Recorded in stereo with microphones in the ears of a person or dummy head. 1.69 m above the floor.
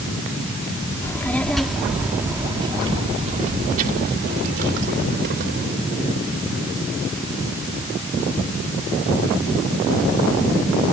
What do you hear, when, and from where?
1.0 s a child speaking: 10° left (ahead or behind); by 5.7 s 75° right (ahead or behind)